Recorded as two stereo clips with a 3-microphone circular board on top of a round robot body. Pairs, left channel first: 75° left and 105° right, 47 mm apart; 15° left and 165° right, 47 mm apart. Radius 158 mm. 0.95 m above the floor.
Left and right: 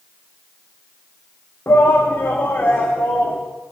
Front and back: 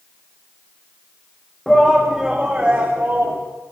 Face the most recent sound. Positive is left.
turn(degrees=140)